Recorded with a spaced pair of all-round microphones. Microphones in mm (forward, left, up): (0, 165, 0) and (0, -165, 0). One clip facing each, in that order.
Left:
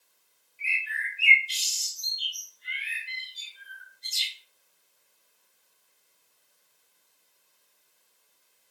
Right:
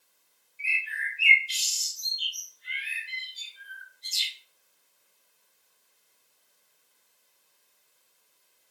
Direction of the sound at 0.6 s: 60° left (ahead or behind).